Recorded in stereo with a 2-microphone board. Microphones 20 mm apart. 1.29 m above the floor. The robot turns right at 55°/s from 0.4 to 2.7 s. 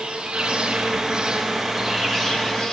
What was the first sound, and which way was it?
An insect, 80° right.